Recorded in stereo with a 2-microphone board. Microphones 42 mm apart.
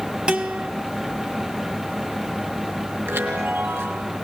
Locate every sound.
0.3 s a guitar: 25° right (ahead or behind), 1.5 m
3.1 s a chime: 80° right, 4 m